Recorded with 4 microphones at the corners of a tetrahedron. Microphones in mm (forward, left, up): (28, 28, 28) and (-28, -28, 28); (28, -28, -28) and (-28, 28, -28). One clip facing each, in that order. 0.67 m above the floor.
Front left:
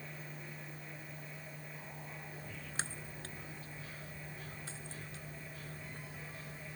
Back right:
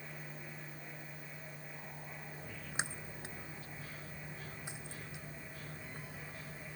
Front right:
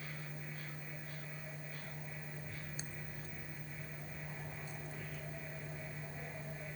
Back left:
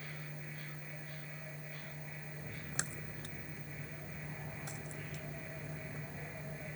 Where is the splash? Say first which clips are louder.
Back right 3 dB, back left 3 dB; 155° left.